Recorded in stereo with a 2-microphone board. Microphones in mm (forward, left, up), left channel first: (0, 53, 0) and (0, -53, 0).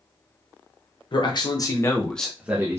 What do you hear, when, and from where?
1.1 s a man speaking: 50° left (ahead or behind), 0.8 m; by 2.8 s 25° right (ahead or behind), 0.6 m